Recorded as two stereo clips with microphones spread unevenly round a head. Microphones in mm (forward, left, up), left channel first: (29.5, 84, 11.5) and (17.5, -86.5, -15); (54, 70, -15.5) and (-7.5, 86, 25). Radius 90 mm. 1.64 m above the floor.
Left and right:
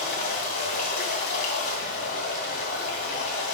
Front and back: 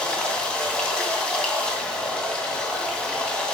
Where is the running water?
85° left, 2 m.